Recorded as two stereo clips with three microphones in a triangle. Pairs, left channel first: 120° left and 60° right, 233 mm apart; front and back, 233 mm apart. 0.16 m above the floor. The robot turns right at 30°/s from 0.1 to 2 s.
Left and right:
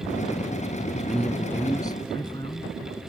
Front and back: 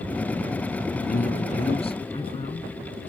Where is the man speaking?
25° left; by 3.1 s 60° left.